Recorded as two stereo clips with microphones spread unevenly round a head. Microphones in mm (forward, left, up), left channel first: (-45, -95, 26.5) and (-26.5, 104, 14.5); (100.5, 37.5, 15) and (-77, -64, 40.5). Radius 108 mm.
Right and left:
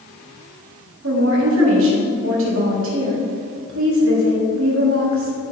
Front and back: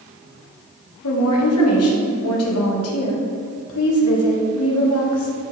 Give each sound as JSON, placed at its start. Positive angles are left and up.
{"t": 1.0, "sound": "a woman speaking", "azimuth_deg": 50, "distance_m": 2.5}